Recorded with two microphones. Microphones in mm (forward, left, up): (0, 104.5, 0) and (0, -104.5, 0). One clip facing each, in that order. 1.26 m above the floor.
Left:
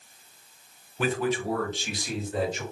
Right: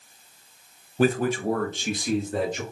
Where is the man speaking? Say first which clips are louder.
Right 5 dB; 40° right (ahead or behind), 0.6 m; by 2.6 s 55° right (ahead or behind), 2.5 m.